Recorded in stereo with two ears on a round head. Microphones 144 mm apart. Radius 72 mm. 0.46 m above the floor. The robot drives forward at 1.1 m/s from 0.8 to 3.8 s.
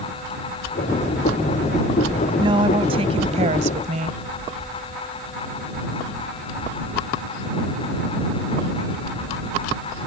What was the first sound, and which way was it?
A woman speaking, 30° right (ahead or behind).